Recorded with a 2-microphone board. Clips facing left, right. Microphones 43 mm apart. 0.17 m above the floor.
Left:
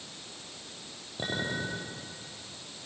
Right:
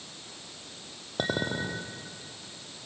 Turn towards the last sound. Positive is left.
turn(degrees=-75)  # may be behind; listen again after turning